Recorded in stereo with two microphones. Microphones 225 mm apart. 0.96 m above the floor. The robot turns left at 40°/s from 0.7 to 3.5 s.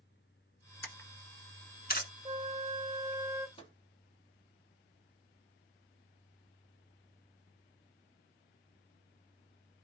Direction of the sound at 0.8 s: 10° left (ahead or behind).